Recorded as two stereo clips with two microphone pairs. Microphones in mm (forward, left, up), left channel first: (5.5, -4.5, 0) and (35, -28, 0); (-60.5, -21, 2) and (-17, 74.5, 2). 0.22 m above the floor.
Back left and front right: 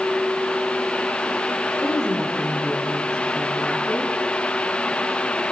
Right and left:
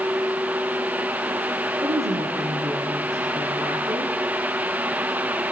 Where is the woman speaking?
40° left, 7 m.